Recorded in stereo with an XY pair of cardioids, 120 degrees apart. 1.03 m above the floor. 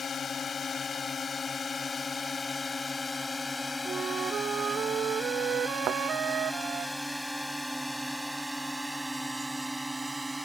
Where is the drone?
35° left; by 10.5 s 10° right.